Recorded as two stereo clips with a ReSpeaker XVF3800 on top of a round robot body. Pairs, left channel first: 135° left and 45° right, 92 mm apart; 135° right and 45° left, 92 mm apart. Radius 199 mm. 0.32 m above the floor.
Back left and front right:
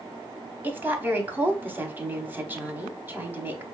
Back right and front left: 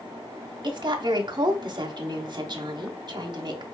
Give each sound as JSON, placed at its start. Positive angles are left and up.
{"t": 0.6, "sound": "a woman speaking", "azimuth_deg": 20, "distance_m": 1.4}